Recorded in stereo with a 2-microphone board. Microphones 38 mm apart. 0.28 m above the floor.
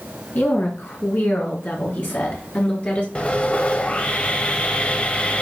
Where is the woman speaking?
65° left (ahead or behind), 3.5 m; by 3.0 s 45° left (ahead or behind), 4 m.